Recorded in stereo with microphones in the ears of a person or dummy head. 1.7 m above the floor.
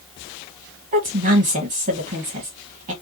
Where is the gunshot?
No gunshot in this recording.